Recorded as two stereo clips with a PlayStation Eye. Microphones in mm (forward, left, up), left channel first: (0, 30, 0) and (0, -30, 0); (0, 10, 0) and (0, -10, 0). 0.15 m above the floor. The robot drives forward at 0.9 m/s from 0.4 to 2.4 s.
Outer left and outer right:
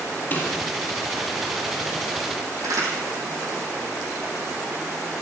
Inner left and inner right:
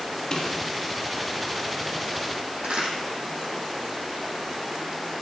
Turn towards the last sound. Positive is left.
turn(degrees=-70)  # may be behind; listen again after turning